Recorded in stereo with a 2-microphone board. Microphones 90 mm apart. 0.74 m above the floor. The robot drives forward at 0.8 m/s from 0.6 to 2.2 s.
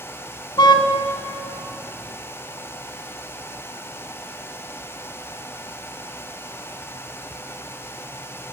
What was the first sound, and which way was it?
A car horn, 55° left (ahead or behind).